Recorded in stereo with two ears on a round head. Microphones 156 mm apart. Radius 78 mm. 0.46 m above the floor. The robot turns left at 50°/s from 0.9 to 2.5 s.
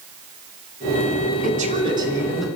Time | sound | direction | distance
1.4 | a woman speaking | 130° right | 4.5 m